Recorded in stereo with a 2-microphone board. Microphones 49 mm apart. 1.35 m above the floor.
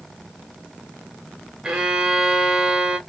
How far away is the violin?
About 0.8 m.